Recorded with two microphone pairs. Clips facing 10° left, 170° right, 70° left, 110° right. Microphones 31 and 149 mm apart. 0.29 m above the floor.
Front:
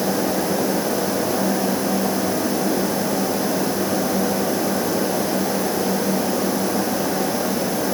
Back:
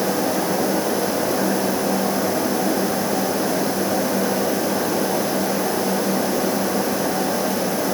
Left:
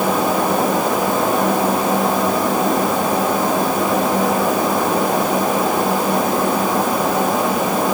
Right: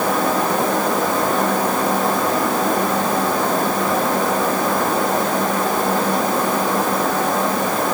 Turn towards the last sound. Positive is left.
No sound to turn to.